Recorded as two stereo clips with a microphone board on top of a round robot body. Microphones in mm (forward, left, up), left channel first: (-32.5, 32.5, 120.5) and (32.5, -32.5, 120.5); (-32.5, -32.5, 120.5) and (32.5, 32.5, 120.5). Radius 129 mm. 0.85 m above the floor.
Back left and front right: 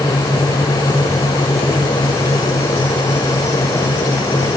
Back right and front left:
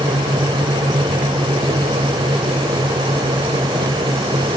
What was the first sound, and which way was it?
Only background noise.